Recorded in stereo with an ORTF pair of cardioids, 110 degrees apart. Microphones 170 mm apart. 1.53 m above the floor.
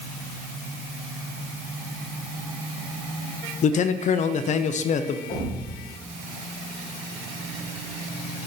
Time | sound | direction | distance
3.6 | a man speaking | 45° left | 0.6 m
5.3 | a thud | 55° left | 3 m